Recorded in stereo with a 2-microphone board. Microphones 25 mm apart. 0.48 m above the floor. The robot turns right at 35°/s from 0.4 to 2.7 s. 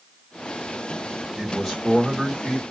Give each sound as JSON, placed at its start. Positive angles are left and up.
{"t": 1.4, "sound": "a man speaking", "side_deg": 10, "distance_m": 1.3}